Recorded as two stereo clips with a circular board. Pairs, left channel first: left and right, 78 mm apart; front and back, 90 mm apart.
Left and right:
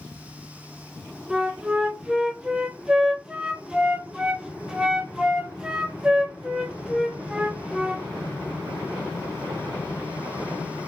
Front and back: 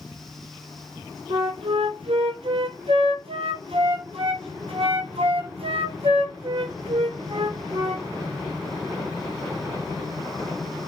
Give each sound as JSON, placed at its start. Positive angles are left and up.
{"t": 1.3, "sound": "a flute", "azimuth_deg": -170, "distance_m": 0.7}